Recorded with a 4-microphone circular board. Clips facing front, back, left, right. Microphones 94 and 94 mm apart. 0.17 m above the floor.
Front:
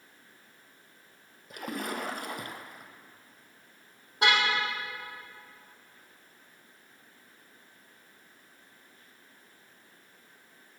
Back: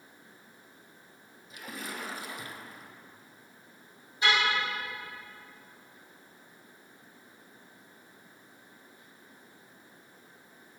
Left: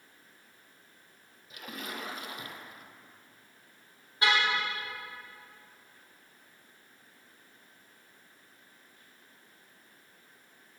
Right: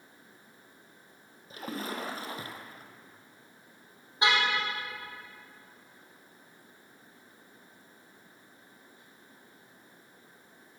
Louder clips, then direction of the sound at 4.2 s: Front 1 dB, right 1 dB; 20° right.